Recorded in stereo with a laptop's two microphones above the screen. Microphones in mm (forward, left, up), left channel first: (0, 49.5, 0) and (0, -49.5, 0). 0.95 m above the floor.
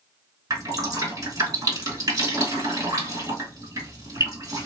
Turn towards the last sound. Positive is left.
turn(degrees=-35)  # may be behind; listen again after turning